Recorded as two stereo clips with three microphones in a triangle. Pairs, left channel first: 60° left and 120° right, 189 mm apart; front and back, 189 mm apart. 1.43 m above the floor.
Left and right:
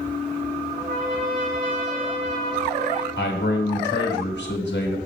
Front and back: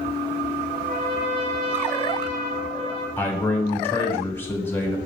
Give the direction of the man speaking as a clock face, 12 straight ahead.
9 o'clock.